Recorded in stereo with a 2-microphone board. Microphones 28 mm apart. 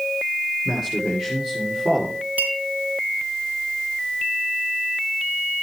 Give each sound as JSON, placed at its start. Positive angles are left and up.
{"t": 0.7, "sound": "a man speaking", "side_deg": -15, "distance_m": 5.0}
{"t": 2.4, "sound": "a clink", "side_deg": -75, "distance_m": 3.0}